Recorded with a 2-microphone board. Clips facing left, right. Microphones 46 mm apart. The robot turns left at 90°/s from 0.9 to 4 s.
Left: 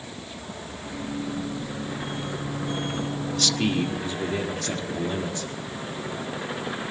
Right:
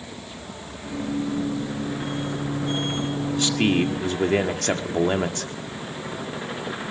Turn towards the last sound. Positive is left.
turn(degrees=-80)